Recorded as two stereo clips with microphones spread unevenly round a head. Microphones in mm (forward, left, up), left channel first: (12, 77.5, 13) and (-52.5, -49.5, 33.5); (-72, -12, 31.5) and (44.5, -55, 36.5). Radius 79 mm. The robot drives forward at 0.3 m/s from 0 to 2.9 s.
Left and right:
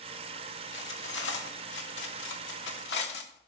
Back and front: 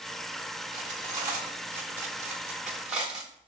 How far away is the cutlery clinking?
About 1.9 m.